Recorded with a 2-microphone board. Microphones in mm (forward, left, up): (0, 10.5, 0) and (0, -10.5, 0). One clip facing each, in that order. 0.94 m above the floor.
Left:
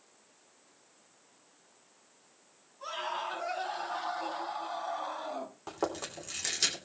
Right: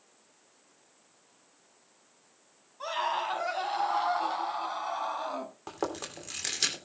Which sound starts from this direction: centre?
Chewing, at 5.7 s.